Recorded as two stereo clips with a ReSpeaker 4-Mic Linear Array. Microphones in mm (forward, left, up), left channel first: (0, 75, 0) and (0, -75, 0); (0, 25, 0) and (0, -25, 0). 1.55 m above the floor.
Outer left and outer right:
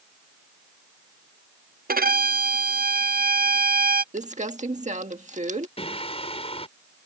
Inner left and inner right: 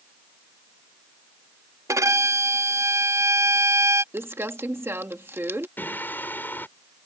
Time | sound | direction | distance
1.9 | a violin | 80° right | ?
4.1 | crumpling | 55° right (ahead or behind) | ?
5.8 | singing | 40° left (ahead or behind) | ?